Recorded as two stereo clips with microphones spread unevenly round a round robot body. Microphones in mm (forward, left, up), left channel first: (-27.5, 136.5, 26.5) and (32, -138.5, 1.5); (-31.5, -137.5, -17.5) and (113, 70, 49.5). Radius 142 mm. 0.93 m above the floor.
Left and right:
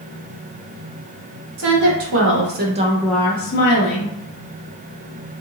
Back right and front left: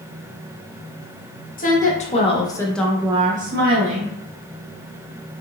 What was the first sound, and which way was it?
A woman speaking, 85° right.